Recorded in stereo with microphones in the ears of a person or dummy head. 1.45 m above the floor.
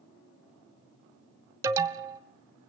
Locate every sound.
1.6 s an alarm: 10° right (ahead or behind), 1.0 m